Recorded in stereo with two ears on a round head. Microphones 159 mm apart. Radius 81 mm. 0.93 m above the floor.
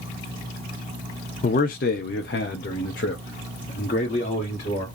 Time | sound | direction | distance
1.4 | a man speaking | 45° left (ahead or behind) | 0.6 m